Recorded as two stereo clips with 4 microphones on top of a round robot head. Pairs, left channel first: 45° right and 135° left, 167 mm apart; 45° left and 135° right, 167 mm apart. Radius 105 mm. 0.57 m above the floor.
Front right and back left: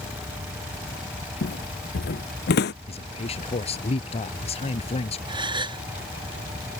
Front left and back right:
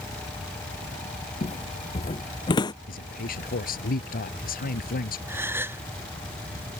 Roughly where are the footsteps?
Ahead.